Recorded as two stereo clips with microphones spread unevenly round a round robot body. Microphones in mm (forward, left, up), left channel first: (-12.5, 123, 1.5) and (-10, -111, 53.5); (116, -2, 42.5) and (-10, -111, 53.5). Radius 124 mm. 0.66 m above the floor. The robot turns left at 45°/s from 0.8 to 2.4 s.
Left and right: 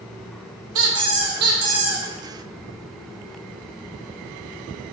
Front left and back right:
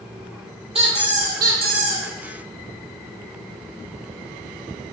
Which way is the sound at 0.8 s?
95° right.